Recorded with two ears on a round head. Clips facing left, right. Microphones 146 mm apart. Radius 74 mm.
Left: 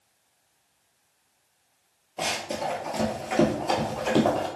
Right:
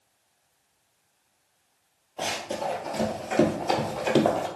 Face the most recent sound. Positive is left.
turn(degrees=-15)  # may be behind; listen again after turning